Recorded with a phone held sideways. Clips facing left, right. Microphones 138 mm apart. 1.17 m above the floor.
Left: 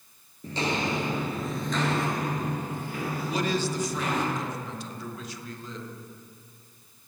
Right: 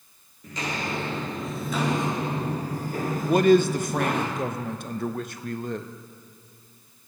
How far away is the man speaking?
About 0.7 m.